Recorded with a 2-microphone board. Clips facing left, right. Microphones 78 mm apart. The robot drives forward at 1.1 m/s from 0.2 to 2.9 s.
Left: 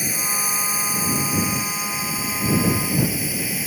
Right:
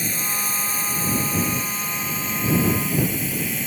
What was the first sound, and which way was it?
A drone, 5° left (ahead or behind).